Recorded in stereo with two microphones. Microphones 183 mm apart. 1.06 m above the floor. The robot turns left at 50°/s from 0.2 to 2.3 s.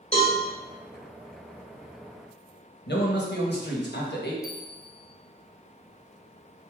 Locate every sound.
0.1 s a cowbell: 35° left (ahead or behind), 1.5 m; by 0.4 s 40° left (ahead or behind), 1.5 m
2.9 s a man speaking: 70° left (ahead or behind), 1.1 m
4.4 s a bell: 45° left (ahead or behind), 0.9 m